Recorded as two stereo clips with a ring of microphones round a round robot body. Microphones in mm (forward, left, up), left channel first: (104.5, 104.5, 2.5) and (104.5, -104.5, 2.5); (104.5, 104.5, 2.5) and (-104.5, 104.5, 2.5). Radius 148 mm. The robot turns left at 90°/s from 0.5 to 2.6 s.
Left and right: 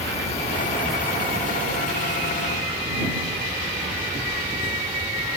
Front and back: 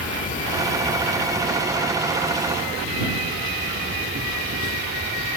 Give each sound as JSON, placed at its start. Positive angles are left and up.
{"t": 0.0, "sound": "an insect", "azimuth_deg": 40}